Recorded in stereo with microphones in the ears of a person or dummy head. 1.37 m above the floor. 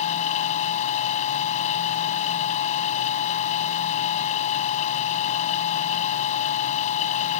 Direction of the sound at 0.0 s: 45° left (ahead or behind).